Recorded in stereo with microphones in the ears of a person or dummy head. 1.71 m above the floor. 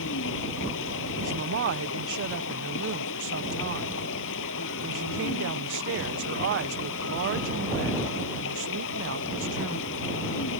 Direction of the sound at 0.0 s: 75° left (ahead or behind).